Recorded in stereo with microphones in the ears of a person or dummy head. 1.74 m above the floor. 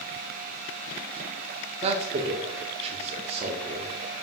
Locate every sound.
1.8 s a man speaking: 35° right (ahead or behind), 0.6 m